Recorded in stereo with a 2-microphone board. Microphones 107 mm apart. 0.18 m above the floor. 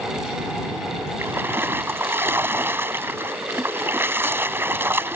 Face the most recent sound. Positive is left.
turn(degrees=-20)  # may be behind; listen again after turning